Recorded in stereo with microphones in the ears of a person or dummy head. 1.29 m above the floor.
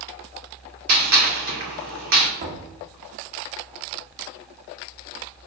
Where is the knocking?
35° right (ahead or behind), 1.4 m.